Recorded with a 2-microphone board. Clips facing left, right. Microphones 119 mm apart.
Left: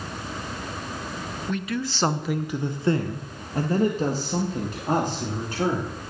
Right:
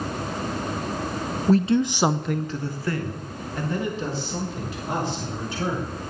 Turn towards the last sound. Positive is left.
turn(degrees=45)  # may be behind; listen again after turning